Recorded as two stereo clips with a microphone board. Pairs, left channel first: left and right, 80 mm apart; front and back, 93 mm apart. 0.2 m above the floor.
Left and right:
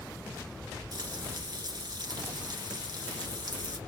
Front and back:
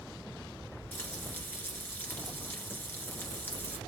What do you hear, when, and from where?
0.9 s frying: 65° right, 1.5 m